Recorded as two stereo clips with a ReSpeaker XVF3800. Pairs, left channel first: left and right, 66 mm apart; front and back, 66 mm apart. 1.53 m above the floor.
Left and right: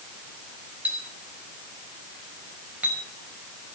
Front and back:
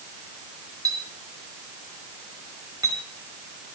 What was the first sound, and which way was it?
A clink, 160° right.